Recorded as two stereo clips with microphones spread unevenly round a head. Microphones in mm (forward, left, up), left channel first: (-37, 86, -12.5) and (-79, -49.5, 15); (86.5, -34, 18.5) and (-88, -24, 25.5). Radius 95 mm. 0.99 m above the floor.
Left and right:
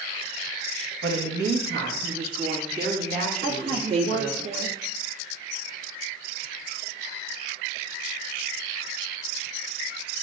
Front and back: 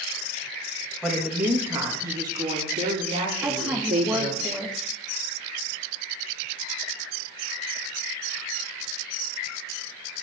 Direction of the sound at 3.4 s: 100° right.